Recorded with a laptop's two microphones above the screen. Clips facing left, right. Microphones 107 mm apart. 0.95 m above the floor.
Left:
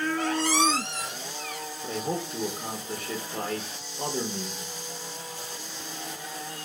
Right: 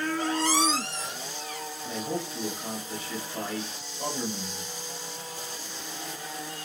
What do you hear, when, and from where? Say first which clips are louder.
0.2 s a squeak: even; 65° left (ahead or behind), 1.0 m
1.8 s a man speaking: left 2 dB; 60° left (ahead or behind), 0.6 m